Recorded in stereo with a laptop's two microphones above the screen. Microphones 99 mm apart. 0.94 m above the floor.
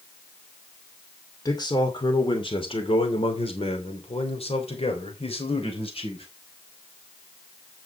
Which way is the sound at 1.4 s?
40° left (ahead or behind).